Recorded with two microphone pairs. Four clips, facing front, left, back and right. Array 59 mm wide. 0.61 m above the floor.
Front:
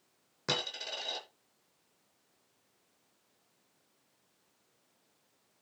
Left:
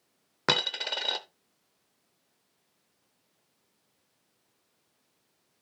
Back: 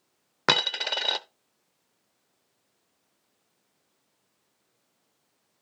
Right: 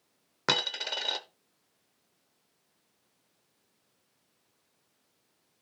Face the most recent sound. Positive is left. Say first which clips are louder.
# left 2 dB, back 11 dB
turn(degrees=175)